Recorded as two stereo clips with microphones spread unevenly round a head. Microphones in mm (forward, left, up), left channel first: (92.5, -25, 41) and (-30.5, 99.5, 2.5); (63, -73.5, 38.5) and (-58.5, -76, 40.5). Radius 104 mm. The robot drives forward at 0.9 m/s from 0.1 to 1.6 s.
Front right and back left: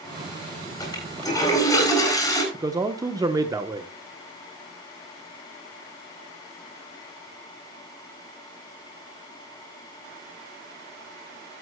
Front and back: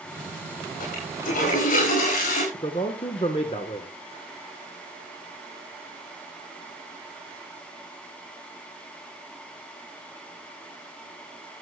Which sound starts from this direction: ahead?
A toilet flushing, at 0.8 s.